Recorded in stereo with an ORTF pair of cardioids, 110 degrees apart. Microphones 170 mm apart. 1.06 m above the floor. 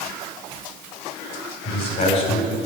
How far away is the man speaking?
About 5 m.